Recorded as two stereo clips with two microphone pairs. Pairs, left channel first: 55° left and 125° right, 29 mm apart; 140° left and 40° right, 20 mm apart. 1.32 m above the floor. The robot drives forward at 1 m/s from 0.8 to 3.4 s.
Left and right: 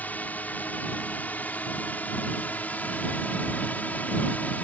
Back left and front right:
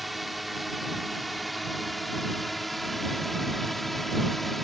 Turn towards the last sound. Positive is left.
turn(degrees=60)